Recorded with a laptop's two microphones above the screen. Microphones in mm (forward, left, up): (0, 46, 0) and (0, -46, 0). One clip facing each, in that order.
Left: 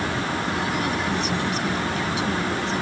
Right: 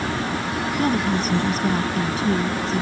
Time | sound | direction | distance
0.8 | a woman speaking | 35° right (ahead or behind) | ?